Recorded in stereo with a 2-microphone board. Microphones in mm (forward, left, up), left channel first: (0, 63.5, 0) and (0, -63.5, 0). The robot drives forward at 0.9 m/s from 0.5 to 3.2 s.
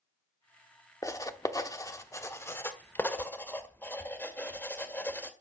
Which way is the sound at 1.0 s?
25° left (ahead or behind).